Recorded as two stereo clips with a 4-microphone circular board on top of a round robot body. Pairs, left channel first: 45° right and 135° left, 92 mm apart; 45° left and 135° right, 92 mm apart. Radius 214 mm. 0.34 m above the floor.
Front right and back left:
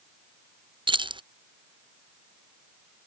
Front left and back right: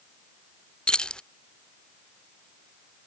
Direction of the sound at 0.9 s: 125° left.